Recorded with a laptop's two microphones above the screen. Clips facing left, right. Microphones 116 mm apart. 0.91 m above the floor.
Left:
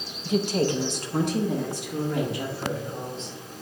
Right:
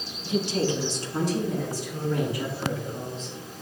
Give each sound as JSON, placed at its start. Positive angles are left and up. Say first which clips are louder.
{"t": 0.2, "sound": "a woman speaking", "louder": "left 2 dB", "side_deg": 40, "distance_m": 0.8}